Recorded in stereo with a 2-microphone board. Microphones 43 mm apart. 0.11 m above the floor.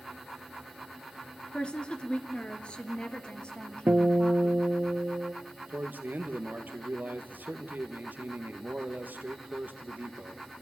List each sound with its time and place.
1.5 s a woman speaking: 25° left (ahead or behind), 1.5 m; by 4.7 s 20° left (ahead or behind), 3.5 m
3.9 s a guitar: 50° right (ahead or behind), 1.2 m
5.7 s a man speaking: 45° right (ahead or behind), 2.0 m